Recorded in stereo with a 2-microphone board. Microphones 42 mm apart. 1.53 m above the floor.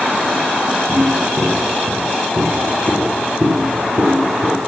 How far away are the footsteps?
About 3.5 m.